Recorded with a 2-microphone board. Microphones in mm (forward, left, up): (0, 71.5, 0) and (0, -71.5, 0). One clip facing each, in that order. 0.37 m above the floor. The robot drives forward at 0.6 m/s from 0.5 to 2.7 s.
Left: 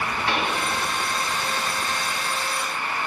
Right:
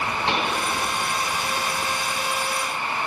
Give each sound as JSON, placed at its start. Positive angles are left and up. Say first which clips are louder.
{"t": 0.3, "sound": "a pop", "louder": "even", "side_deg": -20, "distance_m": 1.4}